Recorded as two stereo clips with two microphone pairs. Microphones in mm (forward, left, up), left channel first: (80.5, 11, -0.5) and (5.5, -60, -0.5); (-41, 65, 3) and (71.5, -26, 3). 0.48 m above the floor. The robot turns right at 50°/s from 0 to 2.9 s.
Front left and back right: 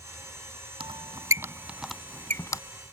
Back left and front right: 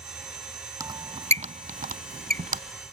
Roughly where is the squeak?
Right.